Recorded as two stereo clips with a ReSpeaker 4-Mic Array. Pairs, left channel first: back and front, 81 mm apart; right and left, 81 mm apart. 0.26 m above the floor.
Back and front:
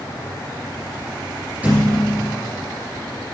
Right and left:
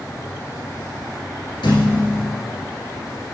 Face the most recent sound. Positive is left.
turn(degrees=-75)